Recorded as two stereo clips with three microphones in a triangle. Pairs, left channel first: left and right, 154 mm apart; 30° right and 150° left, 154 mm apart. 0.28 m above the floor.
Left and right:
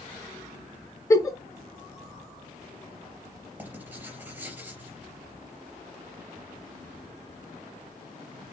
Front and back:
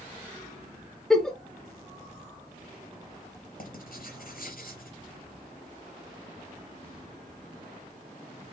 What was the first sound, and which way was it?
A giggle, 50° left.